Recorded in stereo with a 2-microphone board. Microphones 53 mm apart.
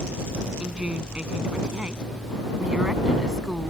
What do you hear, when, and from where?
0.6 s a woman speaking: 20° right (ahead or behind); by 3.7 s 10° right (ahead or behind)